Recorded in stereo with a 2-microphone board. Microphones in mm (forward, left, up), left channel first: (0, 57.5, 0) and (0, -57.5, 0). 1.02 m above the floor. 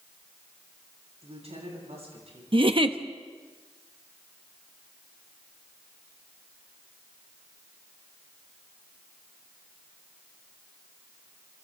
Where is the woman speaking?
65° right (ahead or behind), 10 m.